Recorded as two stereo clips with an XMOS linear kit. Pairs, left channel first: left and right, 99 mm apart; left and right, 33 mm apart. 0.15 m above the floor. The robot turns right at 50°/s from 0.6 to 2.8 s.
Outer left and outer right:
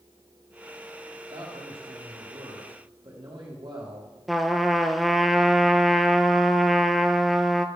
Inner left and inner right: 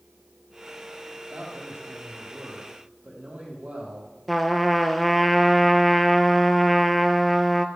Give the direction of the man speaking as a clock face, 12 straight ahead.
4 o'clock.